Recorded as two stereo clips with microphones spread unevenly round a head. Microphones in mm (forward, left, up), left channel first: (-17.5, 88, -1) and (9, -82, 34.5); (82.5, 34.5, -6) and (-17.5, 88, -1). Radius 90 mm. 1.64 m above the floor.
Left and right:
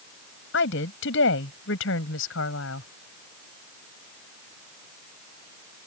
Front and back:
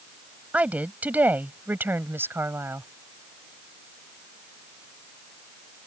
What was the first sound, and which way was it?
A woman speaking, 75° left.